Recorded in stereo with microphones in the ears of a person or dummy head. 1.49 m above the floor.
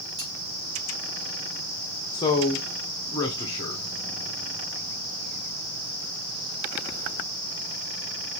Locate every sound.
0.2 s cutlery clinking: 30° right (ahead or behind), 2.5 m
2.1 s a man speaking: 25° left (ahead or behind), 0.8 m